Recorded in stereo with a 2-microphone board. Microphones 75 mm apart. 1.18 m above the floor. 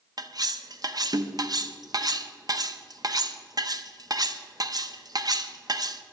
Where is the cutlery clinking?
50° right (ahead or behind), 0.7 m.